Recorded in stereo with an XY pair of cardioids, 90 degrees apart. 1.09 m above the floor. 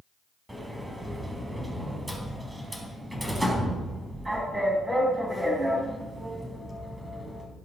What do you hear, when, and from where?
0.5 s a sliding door: 15° right, 4 m